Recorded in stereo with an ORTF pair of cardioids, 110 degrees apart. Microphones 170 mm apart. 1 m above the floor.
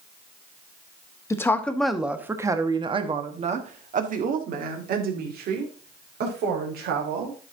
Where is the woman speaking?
15° left, 1.2 m; by 7.4 s 75° right, 3.5 m.